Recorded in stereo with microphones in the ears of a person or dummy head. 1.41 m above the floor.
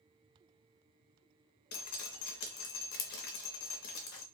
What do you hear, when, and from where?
1.7 s dripping: 50° left (ahead or behind), 0.6 m